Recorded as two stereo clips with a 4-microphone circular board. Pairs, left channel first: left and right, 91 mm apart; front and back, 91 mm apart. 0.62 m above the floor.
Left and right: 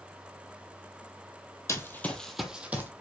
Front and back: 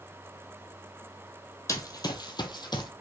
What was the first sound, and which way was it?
Running footsteps, 40° left.